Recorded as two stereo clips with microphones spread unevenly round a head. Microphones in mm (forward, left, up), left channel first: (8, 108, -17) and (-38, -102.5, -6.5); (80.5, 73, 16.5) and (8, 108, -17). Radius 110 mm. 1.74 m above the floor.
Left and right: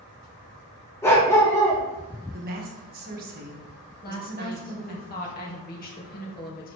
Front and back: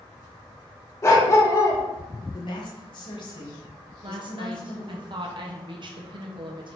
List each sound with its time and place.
1.0 s a dog barking: straight ahead, 2.5 m
2.3 s a woman speaking: 50° right, 1.7 m
4.0 s a woman speaking: 125° left, 1.9 m